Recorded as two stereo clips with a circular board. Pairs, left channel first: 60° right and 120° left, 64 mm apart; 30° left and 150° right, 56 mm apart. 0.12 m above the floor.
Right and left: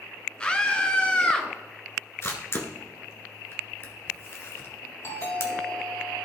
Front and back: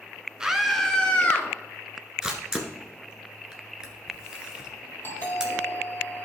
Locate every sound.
0.4 s a scream: 95° right, 1.3 m; by 1.5 s 5° right, 1.7 m
2.2 s a camera shutter: 75° right, 1.6 m
5.0 s a doorbell: 20° right, 4 m